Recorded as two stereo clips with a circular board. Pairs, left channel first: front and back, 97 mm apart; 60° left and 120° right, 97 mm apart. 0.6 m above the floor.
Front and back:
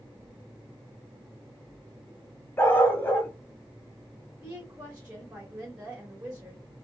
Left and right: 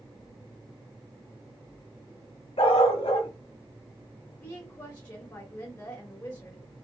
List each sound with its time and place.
2.6 s a dog barking: 65° left, 0.9 m
4.4 s a woman speaking: 105° left, 1.5 m